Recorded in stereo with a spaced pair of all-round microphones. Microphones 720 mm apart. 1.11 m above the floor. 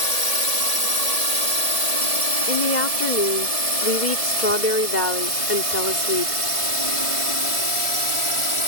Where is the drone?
55° right (ahead or behind); by 8.7 s 40° right (ahead or behind).